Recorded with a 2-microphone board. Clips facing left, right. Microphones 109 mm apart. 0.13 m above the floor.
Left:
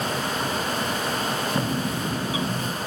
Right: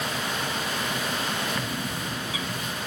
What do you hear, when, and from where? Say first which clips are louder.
1.6 s a bird: left 6 dB; 30° left (ahead or behind)